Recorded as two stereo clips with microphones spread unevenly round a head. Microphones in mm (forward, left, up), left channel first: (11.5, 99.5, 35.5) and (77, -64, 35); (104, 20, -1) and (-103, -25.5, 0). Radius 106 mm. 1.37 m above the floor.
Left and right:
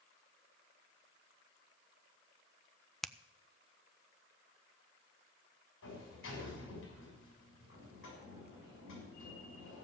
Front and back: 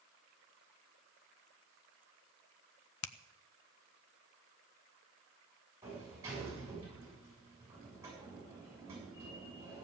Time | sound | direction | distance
3.0 | a finger snap | 25° left | 0.6 m
5.8 | a sliding door | 115° left | 7 m